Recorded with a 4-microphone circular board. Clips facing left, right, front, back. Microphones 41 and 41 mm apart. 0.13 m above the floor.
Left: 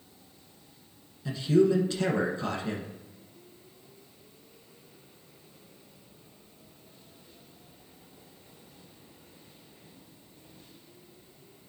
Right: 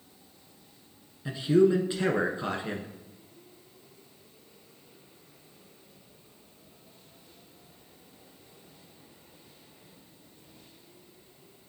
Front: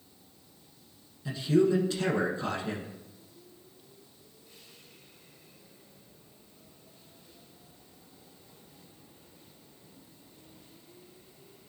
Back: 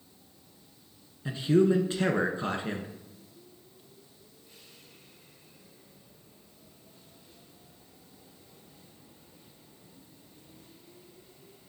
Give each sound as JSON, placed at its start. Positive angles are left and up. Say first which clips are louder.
{"t": 1.2, "sound": "a man speaking", "louder": "right 1 dB, back 1 dB", "azimuth_deg": -145, "distance_m": 1.3}